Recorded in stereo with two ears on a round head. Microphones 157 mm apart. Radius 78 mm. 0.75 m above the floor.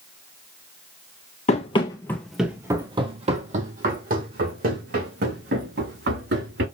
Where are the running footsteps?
40° left (ahead or behind), 1.3 m; by 6.7 s 65° right (ahead or behind), 4.5 m.